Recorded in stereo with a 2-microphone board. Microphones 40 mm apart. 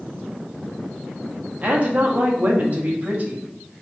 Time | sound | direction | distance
1.6 | a woman speaking | 35° right (ahead or behind) | 1.3 m